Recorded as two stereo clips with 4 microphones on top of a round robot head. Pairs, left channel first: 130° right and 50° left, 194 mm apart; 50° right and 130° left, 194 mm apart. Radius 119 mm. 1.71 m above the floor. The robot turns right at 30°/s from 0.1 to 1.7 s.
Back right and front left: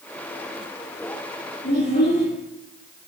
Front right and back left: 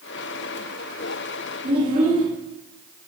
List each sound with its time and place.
1.6 s a child speaking: 175° right, 3 m